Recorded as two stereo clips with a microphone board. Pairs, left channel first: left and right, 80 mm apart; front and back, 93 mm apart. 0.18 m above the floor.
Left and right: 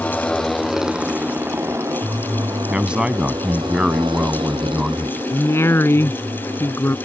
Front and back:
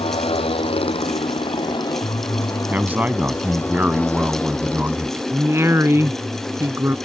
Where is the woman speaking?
135° left.